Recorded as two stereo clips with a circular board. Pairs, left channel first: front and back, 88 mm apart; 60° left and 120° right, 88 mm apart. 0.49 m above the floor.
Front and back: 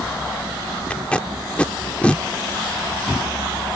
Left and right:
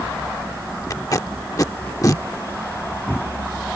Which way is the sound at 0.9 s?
70° left.